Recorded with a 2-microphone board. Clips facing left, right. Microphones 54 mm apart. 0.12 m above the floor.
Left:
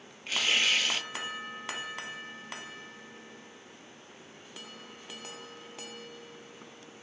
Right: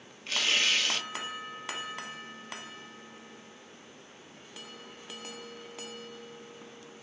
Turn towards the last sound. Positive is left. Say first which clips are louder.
# left 1 dB
turn(degrees=10)  # may be behind; listen again after turning